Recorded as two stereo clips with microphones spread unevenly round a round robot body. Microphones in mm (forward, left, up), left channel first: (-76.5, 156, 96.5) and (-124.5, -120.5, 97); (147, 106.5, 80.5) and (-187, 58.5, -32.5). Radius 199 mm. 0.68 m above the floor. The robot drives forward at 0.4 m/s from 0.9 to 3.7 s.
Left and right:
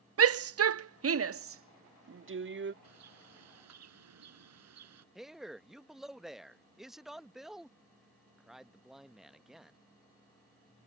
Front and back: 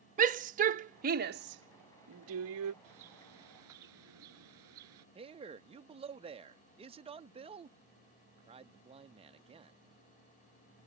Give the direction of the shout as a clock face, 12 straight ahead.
4 o'clock.